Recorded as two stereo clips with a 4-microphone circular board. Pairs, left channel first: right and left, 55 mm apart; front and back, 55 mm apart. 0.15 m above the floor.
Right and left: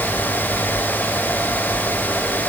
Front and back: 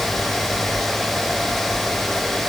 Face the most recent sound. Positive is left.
No sound to turn to.